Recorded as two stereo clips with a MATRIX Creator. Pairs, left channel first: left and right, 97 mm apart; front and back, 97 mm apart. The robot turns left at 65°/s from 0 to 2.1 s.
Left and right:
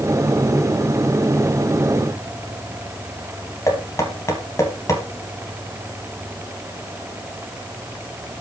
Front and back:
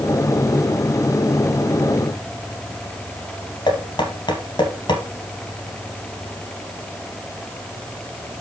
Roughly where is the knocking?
Ahead left.